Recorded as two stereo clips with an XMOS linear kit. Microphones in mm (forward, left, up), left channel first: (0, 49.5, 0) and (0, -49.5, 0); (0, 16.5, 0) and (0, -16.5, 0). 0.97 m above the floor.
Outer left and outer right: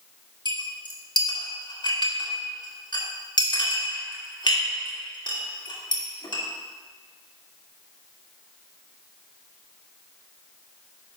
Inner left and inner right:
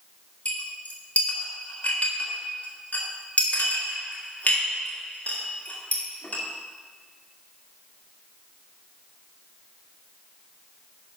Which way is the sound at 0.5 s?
50° left (ahead or behind).